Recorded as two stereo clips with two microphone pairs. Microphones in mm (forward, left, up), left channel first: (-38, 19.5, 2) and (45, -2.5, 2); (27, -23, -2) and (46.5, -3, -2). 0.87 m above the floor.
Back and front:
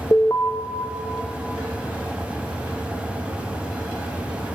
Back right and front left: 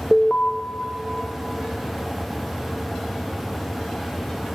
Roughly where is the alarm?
Behind.